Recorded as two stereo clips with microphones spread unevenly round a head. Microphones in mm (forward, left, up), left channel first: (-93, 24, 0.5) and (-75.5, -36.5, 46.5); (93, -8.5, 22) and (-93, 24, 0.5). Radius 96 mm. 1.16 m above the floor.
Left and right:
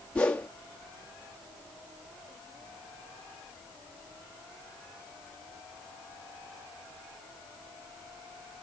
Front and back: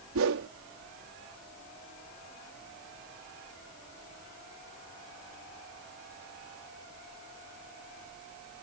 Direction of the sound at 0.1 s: 170° left.